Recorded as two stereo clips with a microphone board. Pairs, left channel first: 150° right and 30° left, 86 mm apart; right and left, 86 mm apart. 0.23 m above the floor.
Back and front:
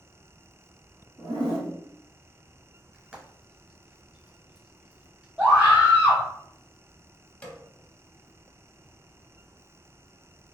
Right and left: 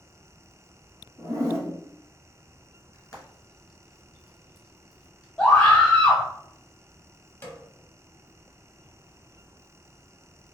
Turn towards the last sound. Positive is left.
turn(degrees=-100)